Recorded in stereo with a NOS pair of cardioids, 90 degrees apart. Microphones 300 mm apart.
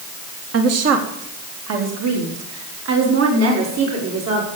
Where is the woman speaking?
55° right, 1.9 m; by 4.5 s 60° right, 5 m.